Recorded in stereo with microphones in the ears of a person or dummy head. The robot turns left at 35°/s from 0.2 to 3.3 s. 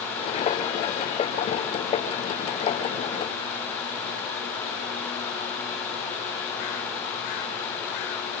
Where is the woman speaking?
No woman speaking in this recording.